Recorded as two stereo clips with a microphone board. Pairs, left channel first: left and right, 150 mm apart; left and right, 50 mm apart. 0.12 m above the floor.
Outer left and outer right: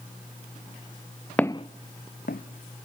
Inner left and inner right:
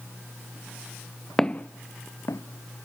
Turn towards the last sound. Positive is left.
turn(degrees=80)